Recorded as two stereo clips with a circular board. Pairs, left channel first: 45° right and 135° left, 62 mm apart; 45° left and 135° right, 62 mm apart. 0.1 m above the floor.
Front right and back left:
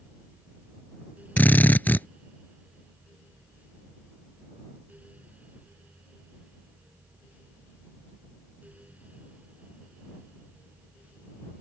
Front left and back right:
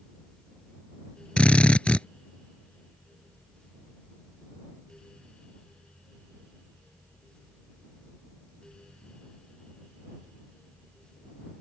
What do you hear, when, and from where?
1.4 s a drill: 15° right